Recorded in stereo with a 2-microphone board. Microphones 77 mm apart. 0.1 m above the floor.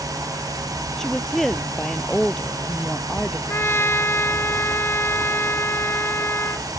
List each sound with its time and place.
1.0 s a woman speaking: 5° left (ahead or behind)
3.5 s a trumpet: 30° left (ahead or behind)